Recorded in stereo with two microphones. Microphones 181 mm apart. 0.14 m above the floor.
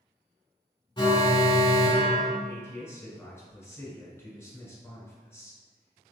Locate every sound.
1.0 s an alarm: 30° left (ahead or behind), 0.8 m
2.5 s a man speaking: 15° left (ahead or behind), 1.1 m